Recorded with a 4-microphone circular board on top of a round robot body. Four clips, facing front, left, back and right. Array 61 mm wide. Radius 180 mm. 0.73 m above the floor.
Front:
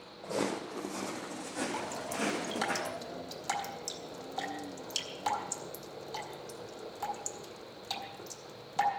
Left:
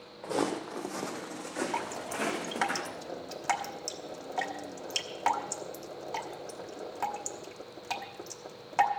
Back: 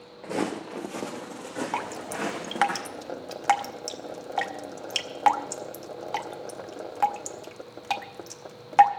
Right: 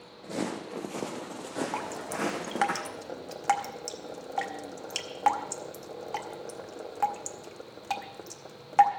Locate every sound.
0.2 s footsteps: 155° left, 0.8 m; by 2.7 s 115° right, 3.5 m
1.7 s dripping: 175° right, 1.0 m